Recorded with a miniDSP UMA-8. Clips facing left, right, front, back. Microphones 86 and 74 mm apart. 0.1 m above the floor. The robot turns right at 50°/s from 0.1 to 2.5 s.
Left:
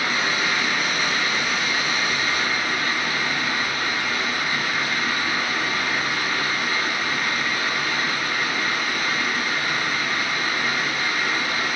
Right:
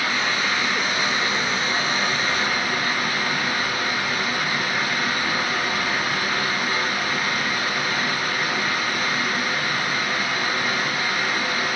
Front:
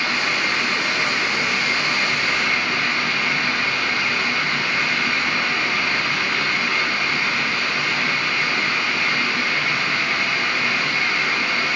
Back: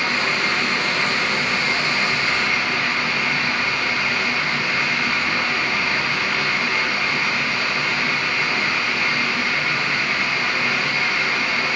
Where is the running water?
145° left, 1.0 m; by 11.8 s 95° right, 1.0 m.